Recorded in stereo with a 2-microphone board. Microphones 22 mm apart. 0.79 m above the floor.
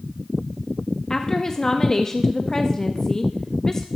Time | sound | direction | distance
1.1 | a woman speaking | 25° left (ahead or behind) | 0.7 m